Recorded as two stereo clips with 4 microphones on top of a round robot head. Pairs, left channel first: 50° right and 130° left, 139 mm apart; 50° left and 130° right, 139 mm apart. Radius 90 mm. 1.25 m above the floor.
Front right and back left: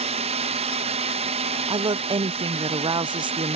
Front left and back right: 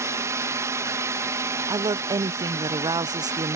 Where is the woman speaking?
175° left.